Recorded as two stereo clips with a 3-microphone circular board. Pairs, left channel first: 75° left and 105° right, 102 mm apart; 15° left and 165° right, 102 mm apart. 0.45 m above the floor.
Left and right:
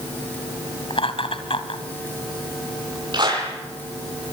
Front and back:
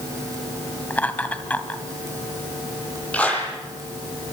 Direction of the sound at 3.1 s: 60° right.